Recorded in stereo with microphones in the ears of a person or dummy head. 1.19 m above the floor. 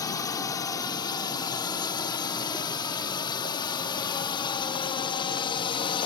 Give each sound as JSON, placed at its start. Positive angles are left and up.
{"t": 0.0, "sound": "a drone", "side_deg": 20}